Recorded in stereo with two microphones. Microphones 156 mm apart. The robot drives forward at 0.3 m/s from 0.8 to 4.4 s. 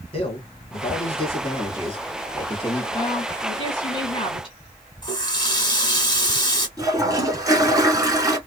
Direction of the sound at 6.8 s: 25° right (ahead or behind).